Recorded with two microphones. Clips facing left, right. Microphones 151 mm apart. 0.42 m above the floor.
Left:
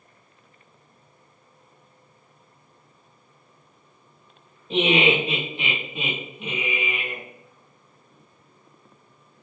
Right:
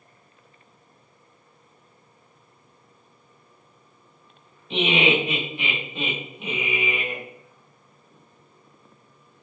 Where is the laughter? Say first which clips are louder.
Left 2 dB; 40° left (ahead or behind), 1.5 m; by 7.2 s 25° right (ahead or behind), 1.3 m.